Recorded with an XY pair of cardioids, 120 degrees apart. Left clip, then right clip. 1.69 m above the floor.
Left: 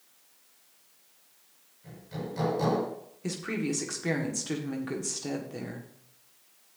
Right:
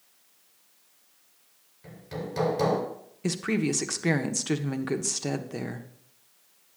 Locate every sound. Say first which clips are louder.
1.8 s hammering: right 2 dB; 50° right, 6 m
3.2 s a woman speaking: right 5 dB; 35° right, 1.3 m